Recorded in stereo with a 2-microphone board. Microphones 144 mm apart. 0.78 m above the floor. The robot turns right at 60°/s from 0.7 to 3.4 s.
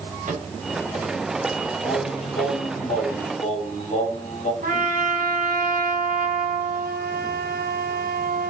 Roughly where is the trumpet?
Right.